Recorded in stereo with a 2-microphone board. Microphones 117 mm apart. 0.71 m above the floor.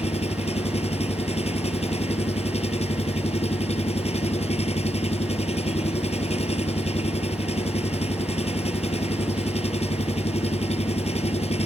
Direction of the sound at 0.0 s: 65° left (ahead or behind).